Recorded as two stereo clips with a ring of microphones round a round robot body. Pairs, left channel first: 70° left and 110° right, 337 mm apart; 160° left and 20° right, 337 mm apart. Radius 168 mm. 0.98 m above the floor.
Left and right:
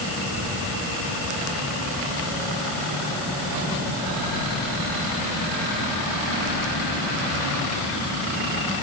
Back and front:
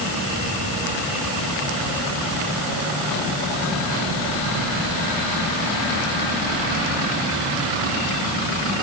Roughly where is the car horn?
I don't hear a car horn.